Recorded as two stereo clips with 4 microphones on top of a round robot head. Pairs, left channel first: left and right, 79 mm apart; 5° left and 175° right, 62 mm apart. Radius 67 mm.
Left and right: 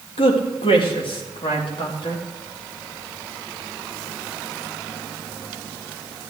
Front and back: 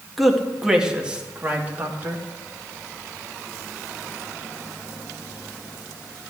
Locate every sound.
0.2 s a man speaking: 95° left, 1.6 m; by 2.2 s 130° left, 2.5 m